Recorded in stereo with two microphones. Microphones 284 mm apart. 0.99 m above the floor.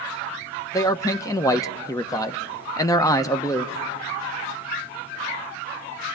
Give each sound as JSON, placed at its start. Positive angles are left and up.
{"t": 0.7, "sound": "a man speaking", "side_deg": 10, "distance_m": 0.7}